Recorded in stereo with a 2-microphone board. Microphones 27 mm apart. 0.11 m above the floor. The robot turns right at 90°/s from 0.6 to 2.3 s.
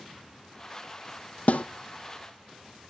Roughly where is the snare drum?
Left.